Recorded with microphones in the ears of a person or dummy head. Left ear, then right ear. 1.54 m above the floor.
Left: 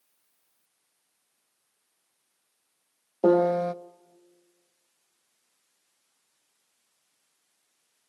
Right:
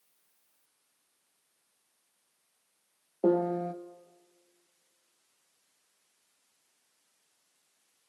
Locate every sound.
3.2 s a piano: 40° left (ahead or behind), 0.6 m